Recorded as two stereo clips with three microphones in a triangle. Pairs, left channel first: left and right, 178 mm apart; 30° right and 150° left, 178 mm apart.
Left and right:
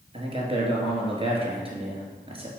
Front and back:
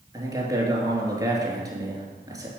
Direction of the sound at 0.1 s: 140° right.